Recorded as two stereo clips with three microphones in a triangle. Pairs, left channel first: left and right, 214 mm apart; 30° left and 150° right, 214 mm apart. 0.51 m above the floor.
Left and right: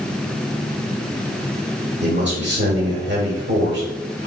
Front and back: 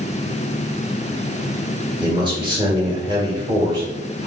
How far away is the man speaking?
About 1.7 m.